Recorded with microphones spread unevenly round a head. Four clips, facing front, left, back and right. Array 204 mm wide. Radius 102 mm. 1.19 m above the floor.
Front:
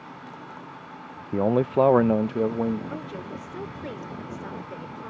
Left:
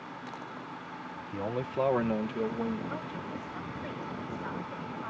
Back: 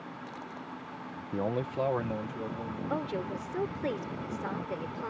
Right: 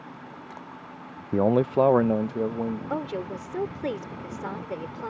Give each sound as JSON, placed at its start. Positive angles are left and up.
{"t": 1.3, "sound": "a man speaking", "azimuth_deg": -60}
{"t": 2.9, "sound": "a woman speaking", "azimuth_deg": -105}